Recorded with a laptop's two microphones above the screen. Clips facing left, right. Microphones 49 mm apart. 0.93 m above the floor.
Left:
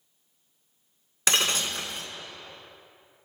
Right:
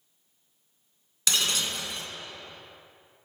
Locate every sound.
1.3 s breaking glass: 35° left (ahead or behind), 1.4 m